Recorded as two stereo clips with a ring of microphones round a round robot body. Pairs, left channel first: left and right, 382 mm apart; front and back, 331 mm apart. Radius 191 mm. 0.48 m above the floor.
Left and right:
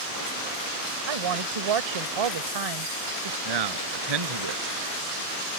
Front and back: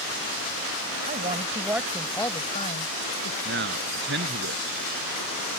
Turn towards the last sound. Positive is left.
turn(degrees=-115)